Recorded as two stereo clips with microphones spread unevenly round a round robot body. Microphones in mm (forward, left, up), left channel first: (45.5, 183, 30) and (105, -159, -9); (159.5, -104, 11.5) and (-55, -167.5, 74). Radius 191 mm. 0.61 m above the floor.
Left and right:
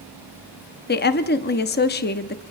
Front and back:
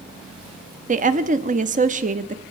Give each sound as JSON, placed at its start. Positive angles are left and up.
{"t": 0.9, "sound": "a woman speaking", "azimuth_deg": 145, "distance_m": 0.8}